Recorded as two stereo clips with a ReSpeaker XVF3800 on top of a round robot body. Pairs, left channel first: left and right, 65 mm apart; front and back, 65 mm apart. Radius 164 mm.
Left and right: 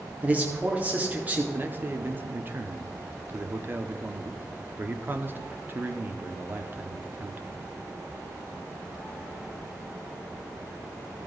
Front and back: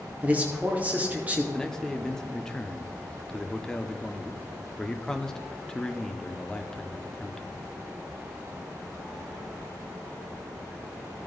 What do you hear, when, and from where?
0.2 s a man speaking: 135° right, 1.7 m
1.5 s a man speaking: 75° right, 1.1 m